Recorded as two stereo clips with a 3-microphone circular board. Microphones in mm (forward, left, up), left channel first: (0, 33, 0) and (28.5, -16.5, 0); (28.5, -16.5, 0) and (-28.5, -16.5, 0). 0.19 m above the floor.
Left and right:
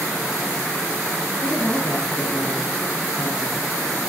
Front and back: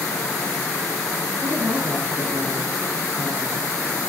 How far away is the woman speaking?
About 5.5 m.